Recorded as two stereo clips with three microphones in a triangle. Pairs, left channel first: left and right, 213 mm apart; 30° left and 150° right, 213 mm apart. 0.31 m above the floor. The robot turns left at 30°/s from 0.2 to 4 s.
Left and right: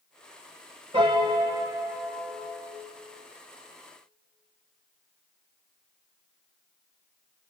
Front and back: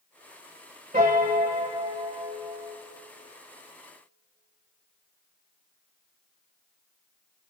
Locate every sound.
0.9 s a piano: 135° right, 1.3 m; by 2.8 s 170° left, 1.3 m